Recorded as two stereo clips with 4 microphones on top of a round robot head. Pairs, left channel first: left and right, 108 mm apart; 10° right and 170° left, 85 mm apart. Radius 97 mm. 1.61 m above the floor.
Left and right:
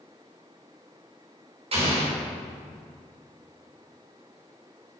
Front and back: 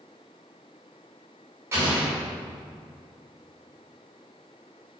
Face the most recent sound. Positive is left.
turn(degrees=-125)